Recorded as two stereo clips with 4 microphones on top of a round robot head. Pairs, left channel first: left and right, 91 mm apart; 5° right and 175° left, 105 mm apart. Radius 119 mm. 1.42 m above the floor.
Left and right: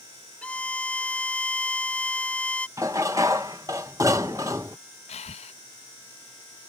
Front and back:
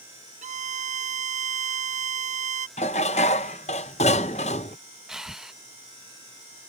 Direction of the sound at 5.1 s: 85° left.